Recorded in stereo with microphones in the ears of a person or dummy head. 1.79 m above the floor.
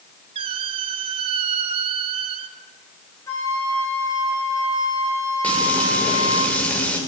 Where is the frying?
10° left (ahead or behind), 7 m.